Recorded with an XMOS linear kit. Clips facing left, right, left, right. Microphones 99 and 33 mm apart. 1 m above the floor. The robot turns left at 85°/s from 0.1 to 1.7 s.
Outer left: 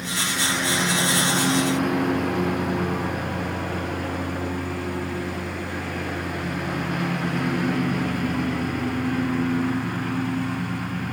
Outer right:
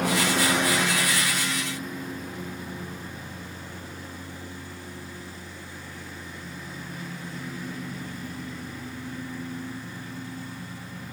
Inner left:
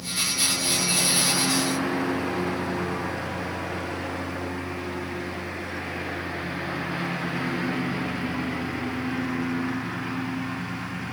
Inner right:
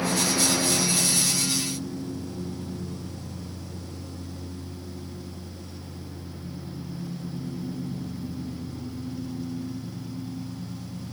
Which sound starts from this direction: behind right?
A lawn mower, at 0.0 s.